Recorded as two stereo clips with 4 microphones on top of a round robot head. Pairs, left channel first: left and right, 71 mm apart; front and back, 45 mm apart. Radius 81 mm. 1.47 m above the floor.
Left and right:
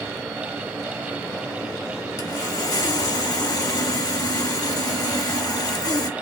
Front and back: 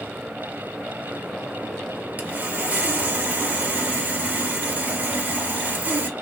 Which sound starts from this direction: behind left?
Sawing, at 2.2 s.